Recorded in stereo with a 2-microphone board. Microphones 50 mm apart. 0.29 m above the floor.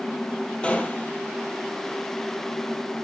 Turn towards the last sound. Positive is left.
turn(degrees=25)  # may be behind; listen again after turning